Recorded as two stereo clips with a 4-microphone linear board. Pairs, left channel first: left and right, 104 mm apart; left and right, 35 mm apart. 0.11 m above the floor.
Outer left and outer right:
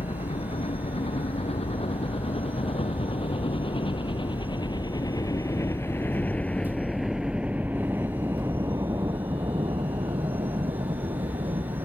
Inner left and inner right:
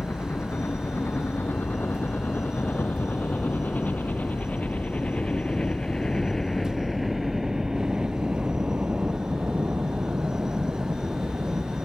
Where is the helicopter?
75° left (ahead or behind); by 11.8 s 55° right (ahead or behind).